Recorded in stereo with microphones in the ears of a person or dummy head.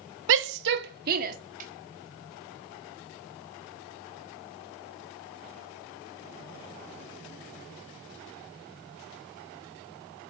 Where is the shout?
70° right (ahead or behind), 1.0 m; by 1.4 s 50° right (ahead or behind), 2 m.